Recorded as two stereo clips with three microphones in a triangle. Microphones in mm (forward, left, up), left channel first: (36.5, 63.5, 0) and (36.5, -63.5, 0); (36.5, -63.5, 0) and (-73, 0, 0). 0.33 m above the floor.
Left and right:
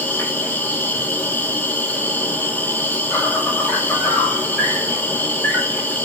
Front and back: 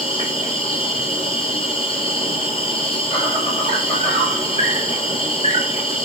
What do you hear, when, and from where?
0.0 s an insect: 15° left, 1.4 m